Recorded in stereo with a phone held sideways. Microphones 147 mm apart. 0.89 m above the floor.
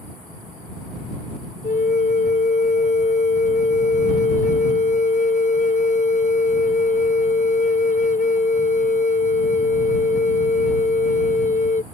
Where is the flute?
60° left (ahead or behind).